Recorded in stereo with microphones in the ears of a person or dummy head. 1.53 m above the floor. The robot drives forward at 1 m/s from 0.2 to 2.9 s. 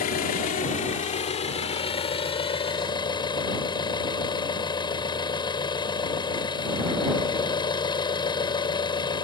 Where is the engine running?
45° left (ahead or behind); by 9.2 s 25° left (ahead or behind).